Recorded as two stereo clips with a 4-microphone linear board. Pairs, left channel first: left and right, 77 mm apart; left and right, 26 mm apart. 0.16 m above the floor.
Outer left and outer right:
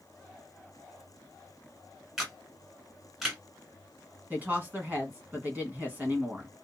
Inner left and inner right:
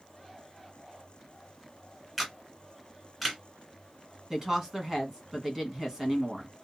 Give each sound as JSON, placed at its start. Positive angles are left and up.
{"t": 2.2, "sound": "a camera shutter", "side_deg": -5, "distance_m": 1.2}
{"t": 4.3, "sound": "a woman speaking", "side_deg": -25, "distance_m": 1.1}